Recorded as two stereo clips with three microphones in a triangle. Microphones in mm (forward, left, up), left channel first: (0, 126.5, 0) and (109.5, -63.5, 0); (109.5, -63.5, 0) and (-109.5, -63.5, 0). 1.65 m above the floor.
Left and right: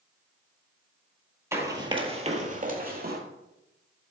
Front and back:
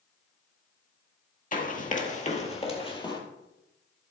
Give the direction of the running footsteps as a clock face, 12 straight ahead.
12 o'clock.